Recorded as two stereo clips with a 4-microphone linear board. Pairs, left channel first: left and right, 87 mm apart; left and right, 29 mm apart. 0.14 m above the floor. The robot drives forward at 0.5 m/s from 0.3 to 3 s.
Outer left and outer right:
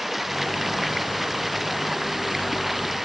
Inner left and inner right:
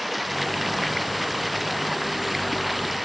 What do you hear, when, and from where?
0.0 s running water: centre (ahead or behind); by 3.0 s 5° right (ahead or behind)